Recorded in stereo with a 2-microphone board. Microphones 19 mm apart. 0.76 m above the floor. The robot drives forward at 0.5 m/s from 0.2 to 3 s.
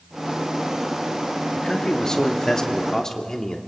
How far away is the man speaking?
About 1.7 m.